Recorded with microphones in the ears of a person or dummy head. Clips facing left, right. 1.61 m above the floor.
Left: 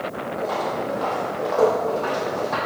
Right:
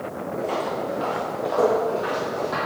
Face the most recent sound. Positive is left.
turn(degrees=-15)  # may be behind; listen again after turning